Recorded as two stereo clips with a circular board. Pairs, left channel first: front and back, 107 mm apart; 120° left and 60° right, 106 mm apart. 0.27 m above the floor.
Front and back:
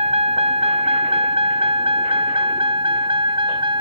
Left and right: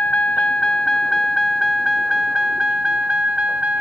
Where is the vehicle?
165° right; by 3.8 s 140° right.